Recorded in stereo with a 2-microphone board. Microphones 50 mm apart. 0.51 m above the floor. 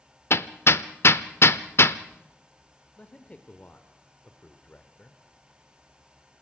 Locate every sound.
0.3 s hammering: 55° left (ahead or behind), 0.7 m
3.0 s a man speaking: 30° left (ahead or behind), 1.3 m